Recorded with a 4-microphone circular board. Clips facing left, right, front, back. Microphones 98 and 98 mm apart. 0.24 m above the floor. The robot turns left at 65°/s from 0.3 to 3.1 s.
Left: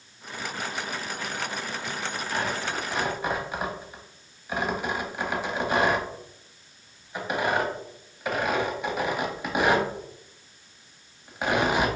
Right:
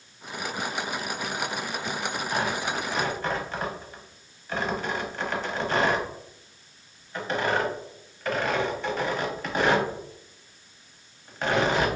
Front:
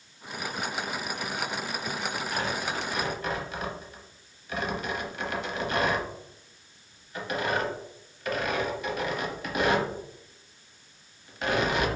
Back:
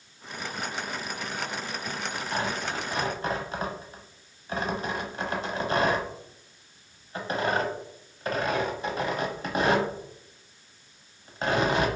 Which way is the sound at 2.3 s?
150° right.